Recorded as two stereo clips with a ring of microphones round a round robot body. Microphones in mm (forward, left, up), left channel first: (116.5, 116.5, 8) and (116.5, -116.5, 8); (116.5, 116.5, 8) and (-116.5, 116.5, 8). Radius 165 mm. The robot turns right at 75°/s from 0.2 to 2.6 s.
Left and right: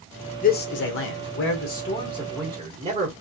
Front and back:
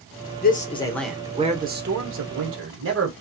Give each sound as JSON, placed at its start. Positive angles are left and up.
{"t": 0.4, "sound": "a man speaking", "azimuth_deg": 40, "distance_m": 1.2}